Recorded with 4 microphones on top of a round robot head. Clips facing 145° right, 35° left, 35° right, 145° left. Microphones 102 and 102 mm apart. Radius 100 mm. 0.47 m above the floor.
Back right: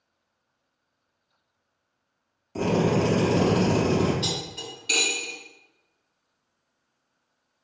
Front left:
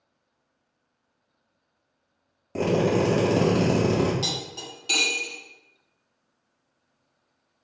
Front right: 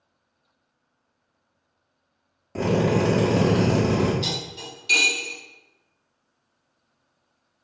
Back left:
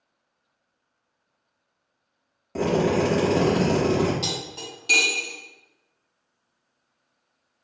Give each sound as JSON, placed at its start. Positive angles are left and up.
{"t": 2.5, "sound": "a drill", "azimuth_deg": 60, "distance_m": 2.0}
{"t": 4.2, "sound": "cutlery clinking", "azimuth_deg": 95, "distance_m": 2.0}